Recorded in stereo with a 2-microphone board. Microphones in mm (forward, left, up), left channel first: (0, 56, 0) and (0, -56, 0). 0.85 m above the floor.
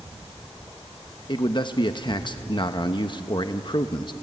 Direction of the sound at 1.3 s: 45° left (ahead or behind).